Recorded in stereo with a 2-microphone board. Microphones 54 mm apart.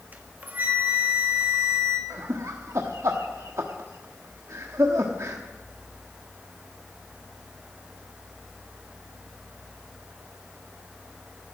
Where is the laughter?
60° right (ahead or behind), 1.1 m.